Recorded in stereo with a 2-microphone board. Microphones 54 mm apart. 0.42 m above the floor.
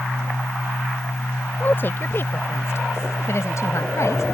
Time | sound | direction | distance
1.6 | a woman speaking | 40° left (ahead or behind) | ?